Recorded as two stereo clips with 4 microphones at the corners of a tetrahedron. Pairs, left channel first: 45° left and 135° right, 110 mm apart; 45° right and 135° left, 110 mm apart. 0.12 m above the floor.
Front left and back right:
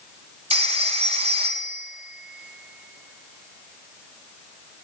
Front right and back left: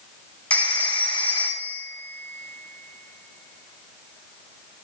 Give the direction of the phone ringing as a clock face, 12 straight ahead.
4 o'clock.